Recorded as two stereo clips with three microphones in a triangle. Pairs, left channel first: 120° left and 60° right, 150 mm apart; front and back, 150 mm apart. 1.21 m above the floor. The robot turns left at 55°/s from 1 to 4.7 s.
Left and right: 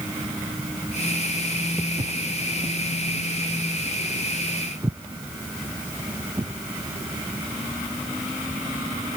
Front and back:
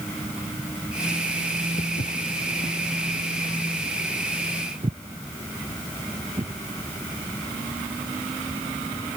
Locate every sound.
1.8 s footsteps: 20° left; by 6.5 s 130° right